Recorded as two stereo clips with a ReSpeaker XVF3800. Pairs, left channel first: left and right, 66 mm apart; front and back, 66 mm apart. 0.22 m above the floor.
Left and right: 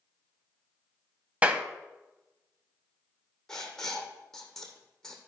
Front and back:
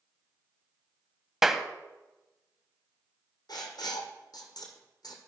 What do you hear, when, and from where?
1.4 s a clap: 105° right, 0.8 m
3.5 s writing: 5° left, 1.9 m